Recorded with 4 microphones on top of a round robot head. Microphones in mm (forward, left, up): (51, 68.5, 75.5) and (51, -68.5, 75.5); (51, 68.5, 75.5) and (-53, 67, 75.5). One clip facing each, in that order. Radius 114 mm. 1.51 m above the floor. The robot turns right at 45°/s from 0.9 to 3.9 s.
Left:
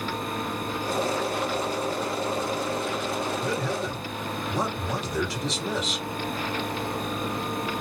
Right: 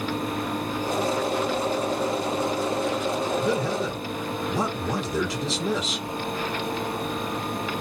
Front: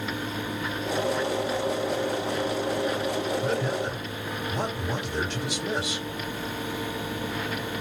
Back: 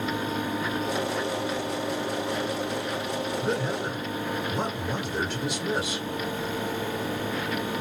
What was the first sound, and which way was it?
A man speaking, 115° right.